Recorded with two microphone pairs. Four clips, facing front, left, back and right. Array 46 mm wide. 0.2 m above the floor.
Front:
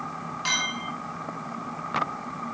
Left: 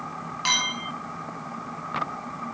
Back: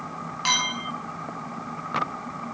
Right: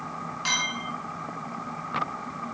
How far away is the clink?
About 1.2 m.